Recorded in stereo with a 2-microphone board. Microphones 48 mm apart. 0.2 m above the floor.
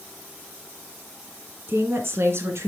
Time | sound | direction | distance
1.7 | a woman speaking | 50° right (ahead or behind) | 2 m